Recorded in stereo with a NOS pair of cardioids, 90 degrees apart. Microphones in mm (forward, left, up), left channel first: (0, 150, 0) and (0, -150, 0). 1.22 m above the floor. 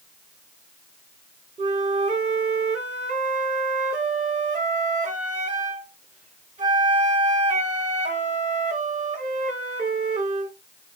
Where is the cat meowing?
I don't hear a cat meowing.